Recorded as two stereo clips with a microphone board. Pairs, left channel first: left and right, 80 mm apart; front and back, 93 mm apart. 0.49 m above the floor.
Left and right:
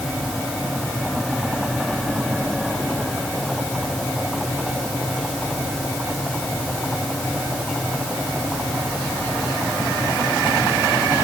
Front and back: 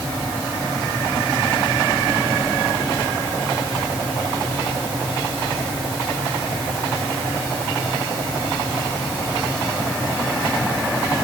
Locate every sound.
Only background noise.